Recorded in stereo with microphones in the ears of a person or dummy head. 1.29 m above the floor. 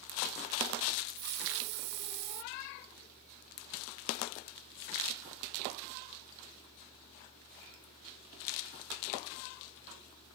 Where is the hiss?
55° right (ahead or behind).